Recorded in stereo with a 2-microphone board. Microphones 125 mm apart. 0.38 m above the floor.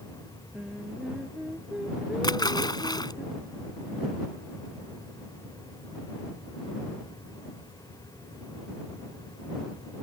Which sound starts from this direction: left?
A splash, at 2.2 s.